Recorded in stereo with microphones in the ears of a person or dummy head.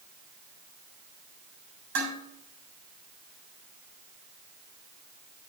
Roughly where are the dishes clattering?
Right.